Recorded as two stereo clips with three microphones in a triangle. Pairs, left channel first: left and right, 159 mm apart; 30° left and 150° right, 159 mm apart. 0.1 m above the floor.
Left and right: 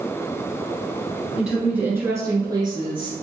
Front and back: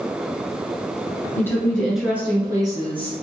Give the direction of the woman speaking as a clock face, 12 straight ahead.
12 o'clock.